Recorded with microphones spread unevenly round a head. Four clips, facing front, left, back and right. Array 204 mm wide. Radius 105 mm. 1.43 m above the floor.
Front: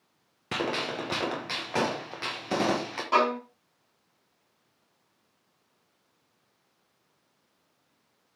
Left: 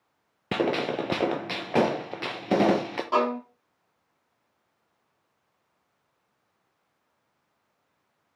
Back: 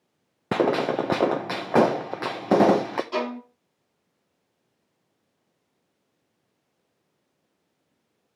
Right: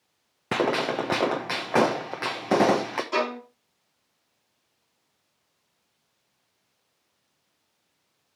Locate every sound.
0.5 s a gunshot: straight behind, 0.7 m
3.1 s a violin: 25° left, 4.5 m